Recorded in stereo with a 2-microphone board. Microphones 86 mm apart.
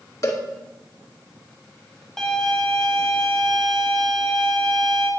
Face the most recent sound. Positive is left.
turn(degrees=5)  # may be behind; listen again after turning